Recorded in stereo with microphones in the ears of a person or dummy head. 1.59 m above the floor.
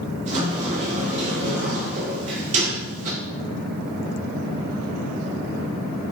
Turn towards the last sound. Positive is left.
turn(degrees=-35)  # may be behind; listen again after turning